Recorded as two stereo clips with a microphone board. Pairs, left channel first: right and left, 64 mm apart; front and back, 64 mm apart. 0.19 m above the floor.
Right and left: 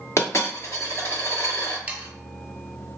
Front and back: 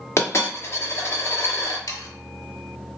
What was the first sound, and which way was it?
A dropped coin, 45° right.